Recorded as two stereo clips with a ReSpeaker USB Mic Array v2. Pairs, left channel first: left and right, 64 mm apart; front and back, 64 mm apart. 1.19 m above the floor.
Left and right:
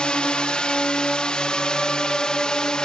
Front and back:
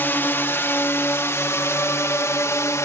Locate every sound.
0.0 s a drone: 25° left; by 2.9 s 15° left